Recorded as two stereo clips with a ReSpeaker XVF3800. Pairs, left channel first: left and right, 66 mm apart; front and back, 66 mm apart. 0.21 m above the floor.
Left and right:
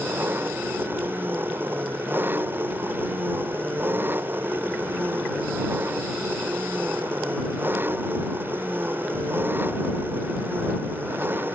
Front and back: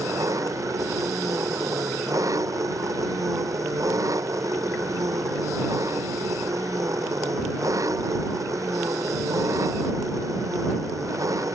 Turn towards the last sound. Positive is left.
turn(degrees=-150)